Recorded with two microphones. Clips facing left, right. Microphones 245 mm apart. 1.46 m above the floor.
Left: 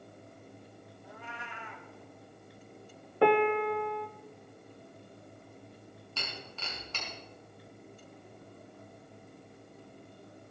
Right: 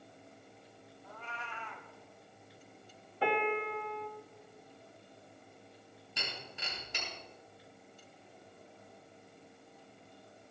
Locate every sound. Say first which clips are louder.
1.0 s a cat meowing: left 1 dB; 15° left (ahead or behind), 1.7 m
3.2 s a piano: left 8 dB; 65° left (ahead or behind), 0.6 m
6.2 s breaking glass: left 1 dB; 15° right (ahead or behind), 4.5 m